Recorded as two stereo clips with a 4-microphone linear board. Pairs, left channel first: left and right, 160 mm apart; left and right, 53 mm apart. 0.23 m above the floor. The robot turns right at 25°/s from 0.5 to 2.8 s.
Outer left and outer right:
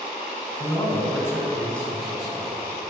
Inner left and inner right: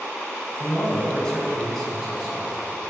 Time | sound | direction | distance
0.6 | a man speaking | 145° left | 2.0 m